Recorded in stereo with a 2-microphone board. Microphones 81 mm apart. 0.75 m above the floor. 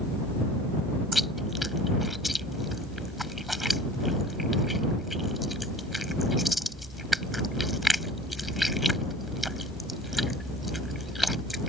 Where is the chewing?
Centre (ahead or behind).